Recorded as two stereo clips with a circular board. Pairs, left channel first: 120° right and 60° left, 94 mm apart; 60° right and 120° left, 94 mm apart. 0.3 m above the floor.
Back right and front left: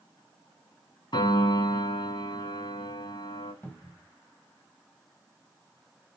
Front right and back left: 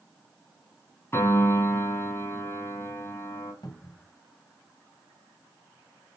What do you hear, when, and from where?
1.1 s a piano: 115° right, 3 m
3.6 s a cupboard door: 55° right, 1.9 m